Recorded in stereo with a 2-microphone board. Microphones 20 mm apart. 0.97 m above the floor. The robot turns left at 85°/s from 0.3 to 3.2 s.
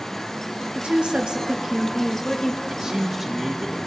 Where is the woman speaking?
90° right, 1.2 m; by 2.6 s 115° left, 1.2 m.